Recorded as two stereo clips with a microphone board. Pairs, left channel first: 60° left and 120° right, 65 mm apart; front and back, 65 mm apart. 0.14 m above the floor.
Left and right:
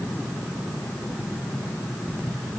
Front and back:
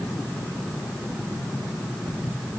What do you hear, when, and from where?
Only background noise.